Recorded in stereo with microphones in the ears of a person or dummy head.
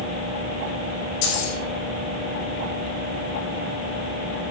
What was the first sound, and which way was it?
Keys jangling, 75° left (ahead or behind).